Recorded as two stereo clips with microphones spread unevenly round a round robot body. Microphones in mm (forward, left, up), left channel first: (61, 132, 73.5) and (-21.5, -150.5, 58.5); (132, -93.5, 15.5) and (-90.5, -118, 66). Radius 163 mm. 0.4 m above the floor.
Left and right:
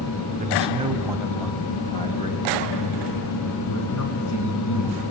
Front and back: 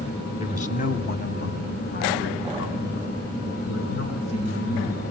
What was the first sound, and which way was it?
A man speaking, 45° right.